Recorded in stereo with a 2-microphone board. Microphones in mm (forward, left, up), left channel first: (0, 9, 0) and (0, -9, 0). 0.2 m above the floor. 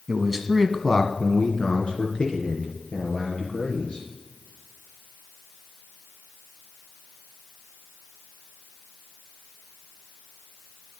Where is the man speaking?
10° right (ahead or behind), 1.4 m; by 4.1 s 75° left (ahead or behind), 5 m.